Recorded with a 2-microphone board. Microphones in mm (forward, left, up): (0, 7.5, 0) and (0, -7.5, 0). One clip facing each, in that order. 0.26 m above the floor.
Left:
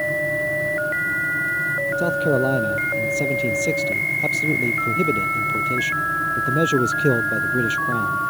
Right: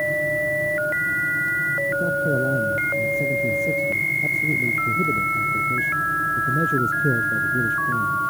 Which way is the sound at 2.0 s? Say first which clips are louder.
Left 2 dB; 45° left (ahead or behind).